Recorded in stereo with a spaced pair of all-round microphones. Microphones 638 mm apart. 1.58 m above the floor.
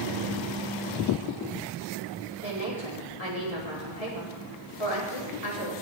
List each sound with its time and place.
2.4 s a woman speaking: 70° left (ahead or behind), 4 m